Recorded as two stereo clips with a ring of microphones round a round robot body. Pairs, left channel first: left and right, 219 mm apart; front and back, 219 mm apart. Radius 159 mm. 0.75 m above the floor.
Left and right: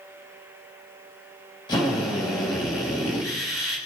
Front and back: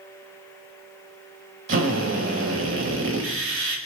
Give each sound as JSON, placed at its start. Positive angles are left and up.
{"t": 1.7, "sound": "a drill", "azimuth_deg": 165, "distance_m": 4.5}